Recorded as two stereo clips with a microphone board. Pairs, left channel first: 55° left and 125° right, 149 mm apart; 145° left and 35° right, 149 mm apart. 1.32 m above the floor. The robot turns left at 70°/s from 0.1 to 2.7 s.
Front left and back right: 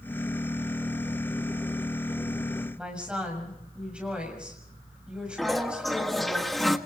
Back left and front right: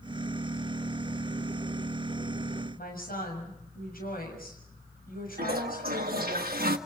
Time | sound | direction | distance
2.8 | a woman speaking | 155° left | 6.5 m
5.4 | a toilet flushing | 35° right | 1.4 m